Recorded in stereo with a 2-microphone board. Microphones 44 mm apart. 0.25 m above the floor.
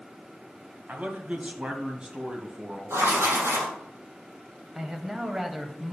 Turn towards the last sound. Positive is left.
turn(degrees=-15)  # may be behind; listen again after turning